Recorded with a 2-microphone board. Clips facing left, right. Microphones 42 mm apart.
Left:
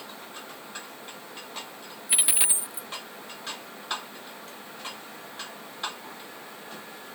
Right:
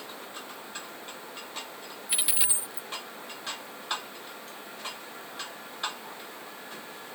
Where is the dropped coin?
20° left (ahead or behind).